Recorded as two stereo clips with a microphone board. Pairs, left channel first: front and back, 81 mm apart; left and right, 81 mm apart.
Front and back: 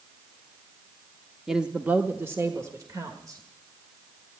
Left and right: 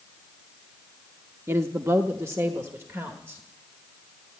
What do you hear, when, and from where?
1.5 s a woman speaking: 100° right, 0.8 m; by 3.4 s 145° right, 1.7 m